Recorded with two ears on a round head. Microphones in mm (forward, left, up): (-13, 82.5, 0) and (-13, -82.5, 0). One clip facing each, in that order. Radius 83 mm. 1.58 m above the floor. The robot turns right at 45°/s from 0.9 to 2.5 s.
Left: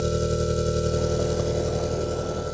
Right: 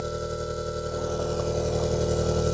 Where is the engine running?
145° left; by 2.5 s 145° right.